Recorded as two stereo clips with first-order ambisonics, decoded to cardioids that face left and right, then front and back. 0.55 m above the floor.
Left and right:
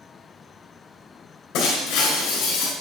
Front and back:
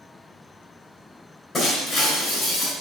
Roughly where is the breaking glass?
Left.